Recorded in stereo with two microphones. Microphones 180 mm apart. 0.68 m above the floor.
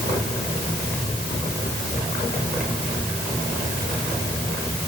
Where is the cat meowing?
No cat meowing in this recording.